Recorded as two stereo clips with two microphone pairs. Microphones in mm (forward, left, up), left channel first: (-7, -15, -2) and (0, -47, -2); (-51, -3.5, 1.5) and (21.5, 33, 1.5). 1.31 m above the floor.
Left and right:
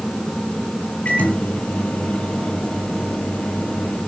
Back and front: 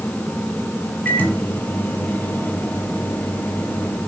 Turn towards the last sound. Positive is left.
turn(degrees=135)